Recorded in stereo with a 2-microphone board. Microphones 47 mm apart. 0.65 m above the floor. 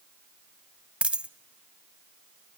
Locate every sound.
1.0 s a dropped coin: 25° right (ahead or behind), 0.5 m